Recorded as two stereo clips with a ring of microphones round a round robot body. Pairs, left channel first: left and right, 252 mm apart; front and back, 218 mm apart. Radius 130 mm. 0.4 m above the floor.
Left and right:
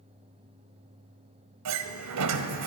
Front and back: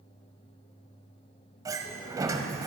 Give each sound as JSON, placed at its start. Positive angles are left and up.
{"t": 1.6, "sound": "a sliding door", "azimuth_deg": -105, "distance_m": 1.4}